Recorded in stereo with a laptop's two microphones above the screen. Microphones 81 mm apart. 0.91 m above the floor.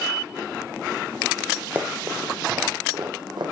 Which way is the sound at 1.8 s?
20° right (ahead or behind).